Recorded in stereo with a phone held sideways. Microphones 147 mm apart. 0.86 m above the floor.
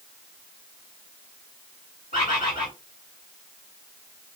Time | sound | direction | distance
2.1 | a bird | 65° left (ahead or behind) | 2 m